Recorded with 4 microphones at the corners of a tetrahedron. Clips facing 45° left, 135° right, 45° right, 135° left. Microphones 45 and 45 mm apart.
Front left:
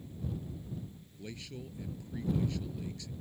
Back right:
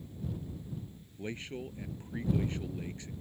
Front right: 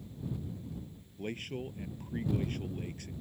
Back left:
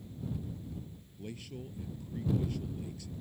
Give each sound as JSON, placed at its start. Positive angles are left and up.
{"t": 1.2, "sound": "a man speaking", "azimuth_deg": -85}